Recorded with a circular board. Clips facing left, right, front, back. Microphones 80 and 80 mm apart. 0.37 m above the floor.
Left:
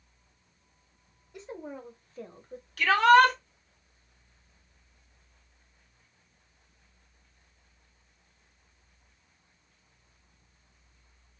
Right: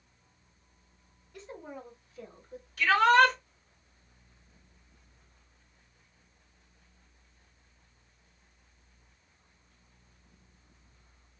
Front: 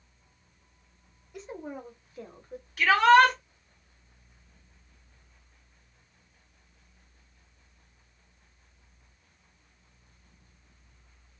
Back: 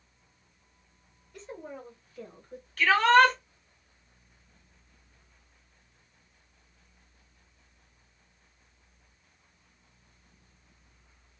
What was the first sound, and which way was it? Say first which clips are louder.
A woman speaking: left 3 dB, front 3 dB; 65° left.